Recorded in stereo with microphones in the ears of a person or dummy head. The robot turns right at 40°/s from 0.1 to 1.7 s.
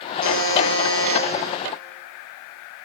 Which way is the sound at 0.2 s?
130° left.